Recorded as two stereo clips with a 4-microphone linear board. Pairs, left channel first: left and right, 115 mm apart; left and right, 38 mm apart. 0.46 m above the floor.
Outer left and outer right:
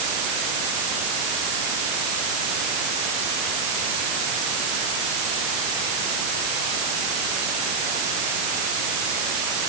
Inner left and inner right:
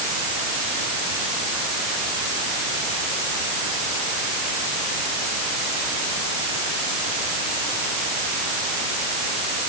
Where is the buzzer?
I don't hear a buzzer.